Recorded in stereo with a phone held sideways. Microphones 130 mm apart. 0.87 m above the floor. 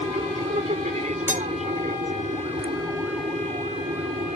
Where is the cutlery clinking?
15° right (ahead or behind).